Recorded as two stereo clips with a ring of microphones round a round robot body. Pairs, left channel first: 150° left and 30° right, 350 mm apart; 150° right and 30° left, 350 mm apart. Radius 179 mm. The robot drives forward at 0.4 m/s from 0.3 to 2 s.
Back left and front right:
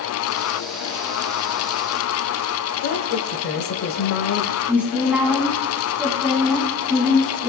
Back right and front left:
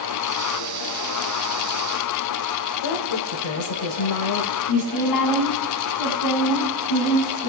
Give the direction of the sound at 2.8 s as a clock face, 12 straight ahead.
5 o'clock.